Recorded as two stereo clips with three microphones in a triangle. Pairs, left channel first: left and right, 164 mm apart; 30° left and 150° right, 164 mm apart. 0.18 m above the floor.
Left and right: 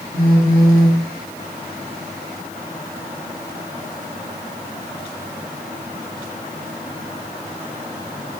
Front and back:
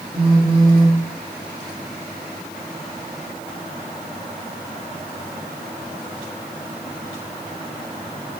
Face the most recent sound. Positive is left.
turn(degrees=-65)